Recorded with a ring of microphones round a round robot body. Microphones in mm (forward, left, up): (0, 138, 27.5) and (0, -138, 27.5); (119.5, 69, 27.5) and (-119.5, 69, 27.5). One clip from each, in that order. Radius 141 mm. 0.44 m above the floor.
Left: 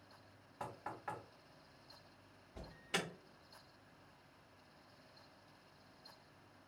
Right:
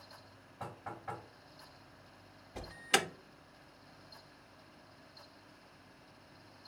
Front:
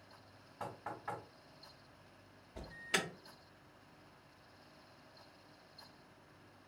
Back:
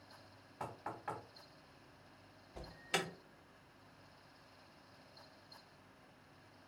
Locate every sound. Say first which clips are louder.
0.6 s knocking: right 2 dB, even; 125° left, 1.5 m
2.5 s an alarm: right 10 dB, front 2 dB; 100° right, 0.7 m